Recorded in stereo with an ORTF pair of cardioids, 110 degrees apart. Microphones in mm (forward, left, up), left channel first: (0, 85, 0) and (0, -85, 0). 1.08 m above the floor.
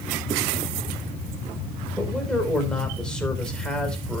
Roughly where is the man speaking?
Ahead.